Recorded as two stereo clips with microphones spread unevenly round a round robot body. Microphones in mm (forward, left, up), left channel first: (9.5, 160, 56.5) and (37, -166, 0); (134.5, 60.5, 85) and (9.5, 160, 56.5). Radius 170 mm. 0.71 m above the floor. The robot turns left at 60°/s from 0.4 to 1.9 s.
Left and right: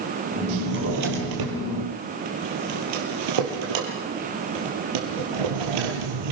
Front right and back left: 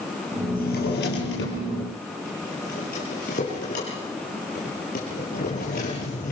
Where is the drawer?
15° right, 5 m; by 6.3 s 95° right, 5 m.